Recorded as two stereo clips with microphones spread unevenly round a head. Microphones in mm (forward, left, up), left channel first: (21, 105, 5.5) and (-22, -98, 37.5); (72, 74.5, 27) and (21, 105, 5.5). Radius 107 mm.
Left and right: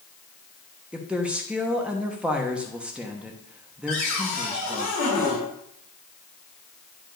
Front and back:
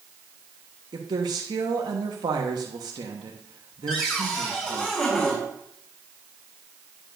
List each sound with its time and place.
0.9 s a woman speaking: 175° left, 1.0 m
3.9 s a cupboard door: 45° left, 4.5 m